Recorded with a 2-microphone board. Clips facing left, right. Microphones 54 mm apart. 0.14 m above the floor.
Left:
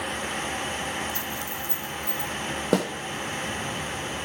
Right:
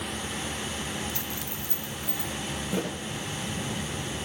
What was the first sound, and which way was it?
A dropped coin, 70° right (ahead or behind).